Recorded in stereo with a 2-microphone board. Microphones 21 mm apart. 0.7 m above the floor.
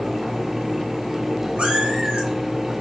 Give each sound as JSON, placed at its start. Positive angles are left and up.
{"t": 1.6, "sound": "a cat meowing", "side_deg": -75, "distance_m": 3.0}